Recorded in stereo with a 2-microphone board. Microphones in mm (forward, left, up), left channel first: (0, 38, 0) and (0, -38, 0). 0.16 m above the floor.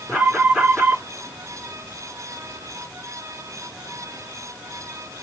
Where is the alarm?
5° right (ahead or behind), 3.5 m.